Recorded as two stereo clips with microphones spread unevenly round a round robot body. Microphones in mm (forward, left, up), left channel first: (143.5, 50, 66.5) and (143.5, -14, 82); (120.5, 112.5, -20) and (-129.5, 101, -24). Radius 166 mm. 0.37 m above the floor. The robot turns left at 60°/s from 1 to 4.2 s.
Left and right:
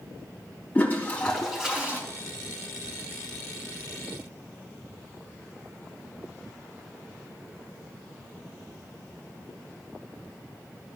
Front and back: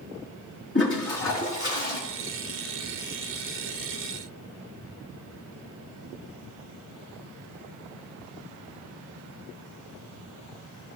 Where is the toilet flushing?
30° left, 3 m; by 2.0 s 30° right, 3 m.